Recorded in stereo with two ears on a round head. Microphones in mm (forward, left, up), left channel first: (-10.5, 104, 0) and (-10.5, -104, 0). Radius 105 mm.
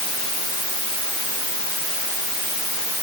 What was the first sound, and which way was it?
Only background noise.